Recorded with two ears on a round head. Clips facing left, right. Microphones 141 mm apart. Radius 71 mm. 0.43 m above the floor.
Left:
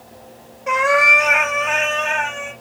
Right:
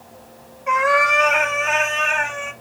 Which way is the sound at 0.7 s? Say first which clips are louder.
Left 1 dB; 40° left (ahead or behind).